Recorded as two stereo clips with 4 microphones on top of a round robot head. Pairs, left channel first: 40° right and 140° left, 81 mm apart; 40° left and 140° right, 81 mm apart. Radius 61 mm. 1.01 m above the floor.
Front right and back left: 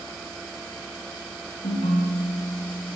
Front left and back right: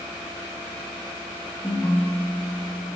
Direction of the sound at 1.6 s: 25° right.